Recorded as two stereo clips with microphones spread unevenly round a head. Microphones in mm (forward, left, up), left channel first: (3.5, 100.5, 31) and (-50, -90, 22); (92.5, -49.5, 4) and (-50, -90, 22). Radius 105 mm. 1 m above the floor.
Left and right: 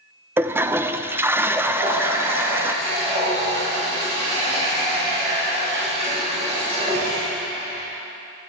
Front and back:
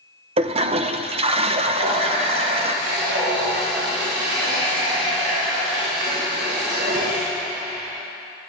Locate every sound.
0.4 s a toilet flushing: 170° right, 0.6 m
1.8 s a running tap: 165° right, 4 m